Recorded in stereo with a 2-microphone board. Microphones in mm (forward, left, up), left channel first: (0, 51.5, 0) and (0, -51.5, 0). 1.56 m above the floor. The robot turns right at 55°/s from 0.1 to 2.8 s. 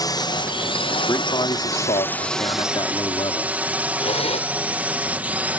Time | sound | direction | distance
0.0 | a drone | 45° left | ?
1.1 | a man speaking | 35° left | ?
4.0 | a zipper | 90° left | ?